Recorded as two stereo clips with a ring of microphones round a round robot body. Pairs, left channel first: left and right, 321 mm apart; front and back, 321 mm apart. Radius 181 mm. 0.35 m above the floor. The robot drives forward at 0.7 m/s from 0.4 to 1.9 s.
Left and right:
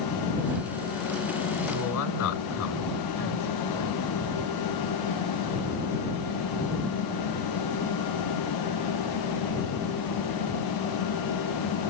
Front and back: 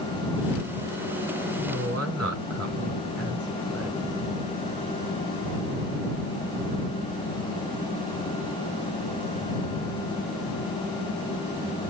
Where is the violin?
I don't hear a violin.